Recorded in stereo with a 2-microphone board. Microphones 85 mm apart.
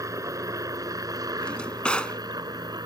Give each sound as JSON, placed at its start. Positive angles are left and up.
{"t": 0.0, "sound": "a helicopter", "side_deg": -40}
{"t": 1.4, "sound": "a drawer", "side_deg": 10}